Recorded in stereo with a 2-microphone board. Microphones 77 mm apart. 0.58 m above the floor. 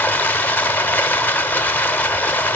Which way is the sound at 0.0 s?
20° left (ahead or behind).